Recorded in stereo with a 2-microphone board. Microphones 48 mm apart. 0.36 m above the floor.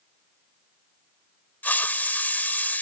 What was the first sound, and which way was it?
A hiss, 40° left (ahead or behind).